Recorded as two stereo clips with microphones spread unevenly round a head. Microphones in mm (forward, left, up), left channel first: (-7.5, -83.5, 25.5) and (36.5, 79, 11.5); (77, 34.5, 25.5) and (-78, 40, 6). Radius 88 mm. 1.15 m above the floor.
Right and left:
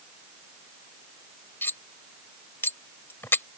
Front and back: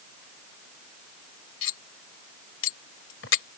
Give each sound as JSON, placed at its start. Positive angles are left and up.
{"t": 1.6, "sound": "cutlery clinking", "azimuth_deg": -30}